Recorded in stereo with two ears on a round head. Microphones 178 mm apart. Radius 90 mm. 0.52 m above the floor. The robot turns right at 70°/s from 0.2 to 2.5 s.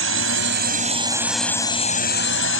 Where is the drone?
80° right; by 2.6 s 80° left.